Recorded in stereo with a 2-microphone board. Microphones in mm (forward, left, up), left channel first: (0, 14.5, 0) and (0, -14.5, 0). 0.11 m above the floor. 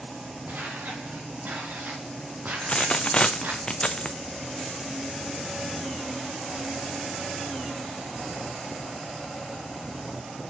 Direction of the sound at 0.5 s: 70° right (ahead or behind).